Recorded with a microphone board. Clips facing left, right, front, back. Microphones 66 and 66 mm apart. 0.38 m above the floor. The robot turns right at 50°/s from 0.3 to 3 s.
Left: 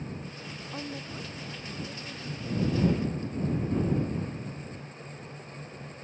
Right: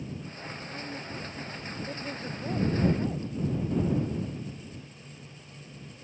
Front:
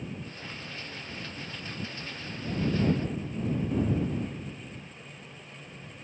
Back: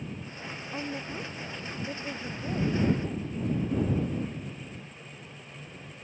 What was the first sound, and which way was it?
A woman speaking, 155° left.